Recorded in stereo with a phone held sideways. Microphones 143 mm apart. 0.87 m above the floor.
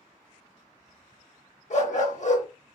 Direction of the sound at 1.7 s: 55° left (ahead or behind).